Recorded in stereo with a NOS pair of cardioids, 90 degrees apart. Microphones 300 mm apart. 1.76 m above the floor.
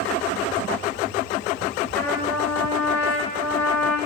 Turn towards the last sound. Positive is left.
turn(degrees=5)